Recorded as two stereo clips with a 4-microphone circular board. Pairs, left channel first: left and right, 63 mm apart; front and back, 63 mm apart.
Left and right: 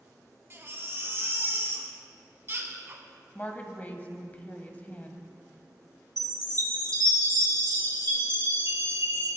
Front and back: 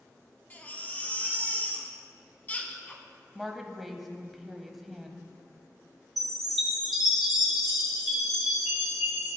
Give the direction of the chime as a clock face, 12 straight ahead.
3 o'clock.